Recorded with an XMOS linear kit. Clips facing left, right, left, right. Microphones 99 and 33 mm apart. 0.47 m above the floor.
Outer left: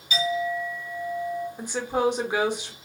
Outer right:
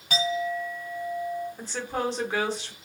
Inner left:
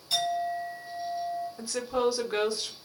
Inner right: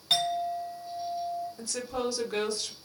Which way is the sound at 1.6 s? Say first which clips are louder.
Outer left 9 dB, inner left 5 dB; 15° left (ahead or behind).